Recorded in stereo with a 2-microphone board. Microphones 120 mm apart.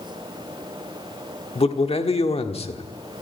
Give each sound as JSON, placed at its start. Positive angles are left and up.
{"t": 1.6, "sound": "a man speaking", "side_deg": 55, "distance_m": 1.5}